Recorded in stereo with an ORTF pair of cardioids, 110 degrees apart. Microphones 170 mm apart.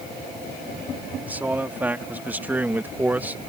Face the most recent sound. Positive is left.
turn(degrees=-10)